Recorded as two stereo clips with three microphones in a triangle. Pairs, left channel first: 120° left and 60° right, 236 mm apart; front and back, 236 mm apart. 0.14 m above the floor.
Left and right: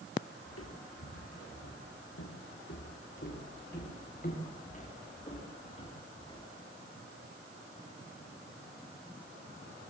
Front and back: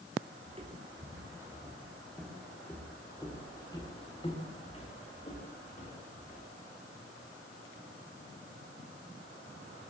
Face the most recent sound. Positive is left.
turn(degrees=55)